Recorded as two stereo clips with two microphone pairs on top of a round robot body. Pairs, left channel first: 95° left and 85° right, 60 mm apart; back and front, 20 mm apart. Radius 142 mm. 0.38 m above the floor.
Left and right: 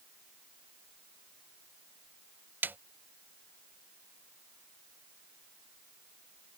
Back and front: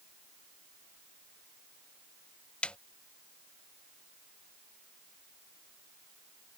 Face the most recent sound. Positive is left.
turn(degrees=-145)